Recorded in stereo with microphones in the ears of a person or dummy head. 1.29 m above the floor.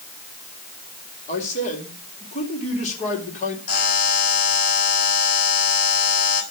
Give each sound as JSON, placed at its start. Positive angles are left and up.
{"t": 1.3, "sound": "a man speaking", "side_deg": 45, "distance_m": 3.5}
{"t": 3.7, "sound": "a buzzer", "side_deg": 60, "distance_m": 4.0}